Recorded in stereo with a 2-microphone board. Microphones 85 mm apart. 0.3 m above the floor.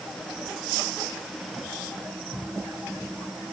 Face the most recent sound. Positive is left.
No sound to turn to.